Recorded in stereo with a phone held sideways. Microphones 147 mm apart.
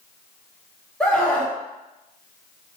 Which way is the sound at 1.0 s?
5° left (ahead or behind).